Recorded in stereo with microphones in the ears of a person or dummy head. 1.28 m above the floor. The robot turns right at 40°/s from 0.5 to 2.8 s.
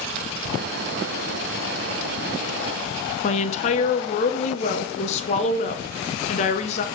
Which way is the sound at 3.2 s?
45° left (ahead or behind).